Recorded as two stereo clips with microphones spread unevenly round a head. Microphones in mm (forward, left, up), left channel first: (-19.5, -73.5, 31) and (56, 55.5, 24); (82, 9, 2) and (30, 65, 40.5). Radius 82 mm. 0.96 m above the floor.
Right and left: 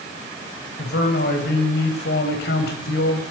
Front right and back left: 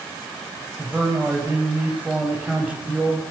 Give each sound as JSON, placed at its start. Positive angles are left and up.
{"t": 0.8, "sound": "a man speaking", "azimuth_deg": -145, "distance_m": 6.0}